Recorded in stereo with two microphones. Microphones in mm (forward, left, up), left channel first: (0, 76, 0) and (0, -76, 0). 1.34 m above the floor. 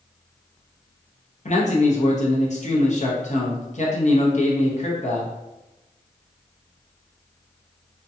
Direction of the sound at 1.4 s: 50° left (ahead or behind).